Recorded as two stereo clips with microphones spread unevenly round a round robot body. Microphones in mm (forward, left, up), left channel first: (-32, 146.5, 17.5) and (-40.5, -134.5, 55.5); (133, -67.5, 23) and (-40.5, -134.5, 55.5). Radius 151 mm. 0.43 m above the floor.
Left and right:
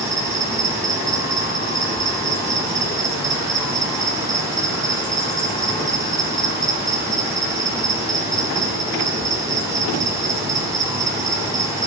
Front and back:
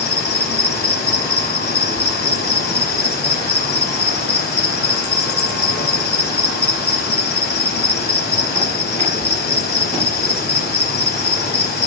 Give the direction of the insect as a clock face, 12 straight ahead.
12 o'clock.